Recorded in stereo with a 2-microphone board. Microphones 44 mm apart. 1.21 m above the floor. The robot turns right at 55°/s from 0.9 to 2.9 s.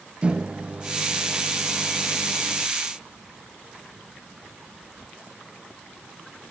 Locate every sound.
0.2 s a microwave: 25° right, 0.8 m; by 2.7 s 75° left, 0.8 m